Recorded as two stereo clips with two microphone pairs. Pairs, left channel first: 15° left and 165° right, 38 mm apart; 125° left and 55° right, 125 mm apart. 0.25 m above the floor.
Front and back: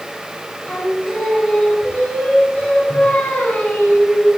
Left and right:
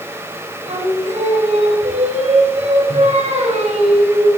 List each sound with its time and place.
0.7 s singing: 35° right, 7.5 m